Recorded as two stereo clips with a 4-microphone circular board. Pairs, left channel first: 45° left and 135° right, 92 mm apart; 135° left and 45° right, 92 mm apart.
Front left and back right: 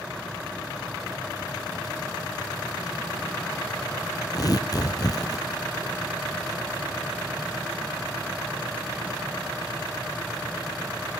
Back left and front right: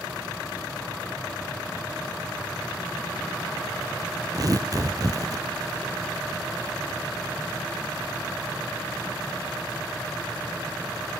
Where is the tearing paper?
Straight ahead, 2.5 m.